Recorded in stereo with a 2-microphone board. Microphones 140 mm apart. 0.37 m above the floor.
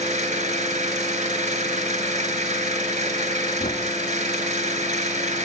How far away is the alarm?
No alarm in this recording.